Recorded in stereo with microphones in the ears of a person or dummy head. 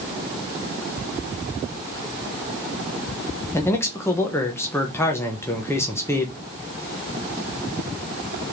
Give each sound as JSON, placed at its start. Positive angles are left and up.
{"t": 3.5, "sound": "a man speaking", "side_deg": 15, "distance_m": 0.9}